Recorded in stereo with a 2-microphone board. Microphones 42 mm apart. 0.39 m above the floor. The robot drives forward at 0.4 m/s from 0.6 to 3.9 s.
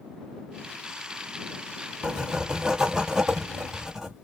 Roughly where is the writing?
Centre.